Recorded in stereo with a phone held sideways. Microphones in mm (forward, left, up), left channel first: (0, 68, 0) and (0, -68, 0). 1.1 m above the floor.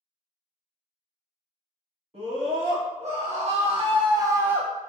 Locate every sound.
2.1 s a scream: 50° right (ahead or behind), 1.5 m; by 4.9 s centre (ahead or behind), 0.9 m